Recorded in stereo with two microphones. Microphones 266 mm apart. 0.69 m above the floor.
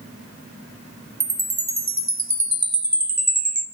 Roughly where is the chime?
Right.